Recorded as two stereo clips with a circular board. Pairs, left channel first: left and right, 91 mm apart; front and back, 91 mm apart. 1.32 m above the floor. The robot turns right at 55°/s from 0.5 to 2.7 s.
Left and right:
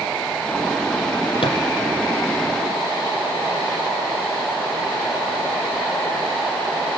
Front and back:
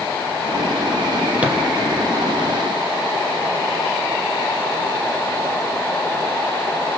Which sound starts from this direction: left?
A thud, at 1.4 s.